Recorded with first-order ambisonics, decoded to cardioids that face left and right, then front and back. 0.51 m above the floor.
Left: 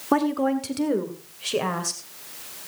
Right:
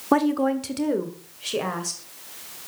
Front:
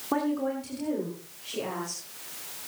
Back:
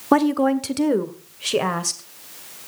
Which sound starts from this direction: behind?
A woman speaking, at 0.1 s.